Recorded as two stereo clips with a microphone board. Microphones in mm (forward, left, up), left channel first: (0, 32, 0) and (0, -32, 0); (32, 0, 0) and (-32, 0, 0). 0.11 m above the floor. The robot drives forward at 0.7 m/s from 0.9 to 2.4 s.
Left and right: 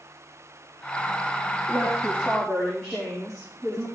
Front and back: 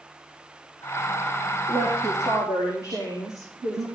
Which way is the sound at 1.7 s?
Straight behind.